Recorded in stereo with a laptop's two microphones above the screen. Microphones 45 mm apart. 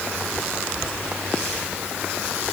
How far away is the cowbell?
No cowbell in this recording.